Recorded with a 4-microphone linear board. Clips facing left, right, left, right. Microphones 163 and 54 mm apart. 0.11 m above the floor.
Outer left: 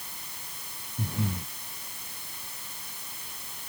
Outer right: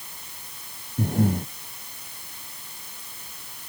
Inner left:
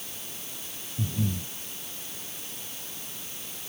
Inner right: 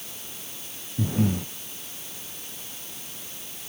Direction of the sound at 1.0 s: 55° right (ahead or behind).